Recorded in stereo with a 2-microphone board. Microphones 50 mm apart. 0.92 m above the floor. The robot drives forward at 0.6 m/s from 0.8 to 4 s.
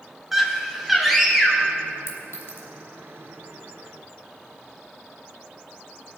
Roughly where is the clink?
Left.